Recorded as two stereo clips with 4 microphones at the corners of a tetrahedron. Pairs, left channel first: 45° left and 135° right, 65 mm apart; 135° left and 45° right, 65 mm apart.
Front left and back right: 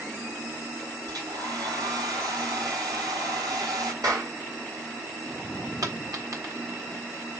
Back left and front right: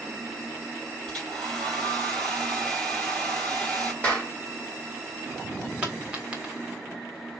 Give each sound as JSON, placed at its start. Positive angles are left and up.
{"t": 1.1, "sound": "a hair dryer", "azimuth_deg": -145, "distance_m": 3.0}
{"t": 4.0, "sound": "a clap", "azimuth_deg": -155, "distance_m": 3.5}
{"t": 5.8, "sound": "a dropped coin", "azimuth_deg": -115, "distance_m": 1.5}